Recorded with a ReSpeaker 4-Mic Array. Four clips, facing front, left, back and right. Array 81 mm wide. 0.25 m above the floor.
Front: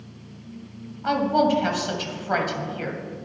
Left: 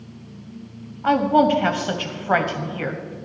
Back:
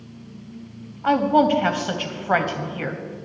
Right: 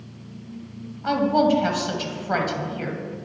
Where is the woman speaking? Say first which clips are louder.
Left 3 dB, back 3 dB; 135° left, 1.0 m.